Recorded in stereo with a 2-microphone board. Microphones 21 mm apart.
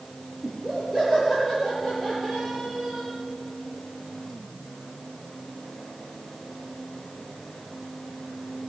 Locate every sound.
0.4 s laughter: 5° right (ahead or behind), 4 m; by 3.1 s 25° right (ahead or behind), 6 m